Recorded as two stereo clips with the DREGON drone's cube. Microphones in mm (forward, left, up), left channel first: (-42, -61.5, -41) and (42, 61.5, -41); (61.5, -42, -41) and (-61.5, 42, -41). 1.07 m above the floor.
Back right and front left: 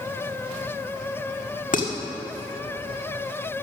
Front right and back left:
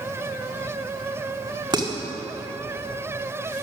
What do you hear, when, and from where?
1.7 s dishes clattering: 150° right, 1.7 m